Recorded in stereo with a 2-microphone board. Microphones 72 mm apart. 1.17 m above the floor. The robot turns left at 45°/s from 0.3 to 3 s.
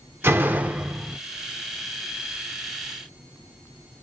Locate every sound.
0.2 s a door slam: 140° right, 0.5 m; by 1.2 s straight behind, 0.5 m